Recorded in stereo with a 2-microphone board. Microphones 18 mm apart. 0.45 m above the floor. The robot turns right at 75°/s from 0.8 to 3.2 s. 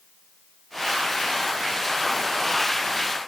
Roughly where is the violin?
I don't hear a violin.